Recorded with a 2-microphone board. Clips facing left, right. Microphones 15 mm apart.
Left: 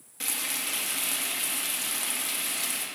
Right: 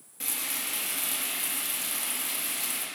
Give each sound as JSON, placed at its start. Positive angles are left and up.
{"t": 0.2, "sound": "frying", "side_deg": 25, "distance_m": 1.7}